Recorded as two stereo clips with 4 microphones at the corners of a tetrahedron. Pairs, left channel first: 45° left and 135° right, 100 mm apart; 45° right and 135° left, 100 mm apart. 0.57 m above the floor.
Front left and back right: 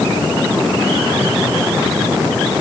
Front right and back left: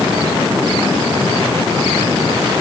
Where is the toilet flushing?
No toilet flushing in this recording.